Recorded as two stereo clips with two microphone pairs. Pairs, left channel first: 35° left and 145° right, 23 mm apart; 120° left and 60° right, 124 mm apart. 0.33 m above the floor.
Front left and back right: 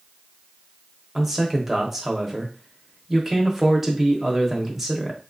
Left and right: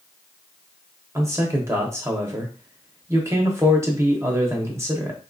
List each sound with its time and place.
1.1 s a man speaking: 75° right, 0.9 m